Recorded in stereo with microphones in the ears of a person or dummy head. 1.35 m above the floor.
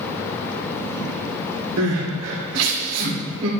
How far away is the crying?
About 2.5 m.